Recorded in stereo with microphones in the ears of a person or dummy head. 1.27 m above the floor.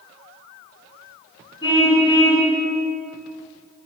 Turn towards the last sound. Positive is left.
turn(degrees=25)  # may be behind; listen again after turning